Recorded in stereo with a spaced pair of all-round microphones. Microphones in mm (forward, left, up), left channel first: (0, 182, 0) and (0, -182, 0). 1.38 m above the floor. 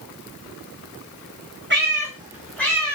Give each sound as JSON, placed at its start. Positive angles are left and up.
{"t": 1.7, "sound": "a cat meowing", "side_deg": -30, "distance_m": 0.9}